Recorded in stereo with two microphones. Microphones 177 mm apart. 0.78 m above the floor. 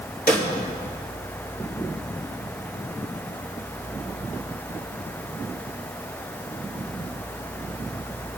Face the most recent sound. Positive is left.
turn(degrees=55)  # may be behind; listen again after turning